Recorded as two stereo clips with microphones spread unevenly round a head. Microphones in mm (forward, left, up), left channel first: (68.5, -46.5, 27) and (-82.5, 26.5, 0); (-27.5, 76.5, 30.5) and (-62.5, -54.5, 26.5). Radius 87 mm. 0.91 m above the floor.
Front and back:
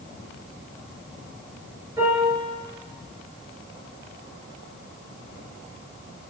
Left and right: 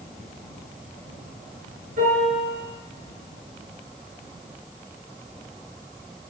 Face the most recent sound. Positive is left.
turn(degrees=-130)